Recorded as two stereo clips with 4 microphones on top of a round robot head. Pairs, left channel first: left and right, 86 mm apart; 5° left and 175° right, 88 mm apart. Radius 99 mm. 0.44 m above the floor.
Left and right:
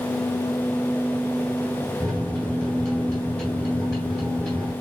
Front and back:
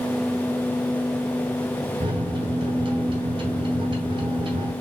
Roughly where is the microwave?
Behind.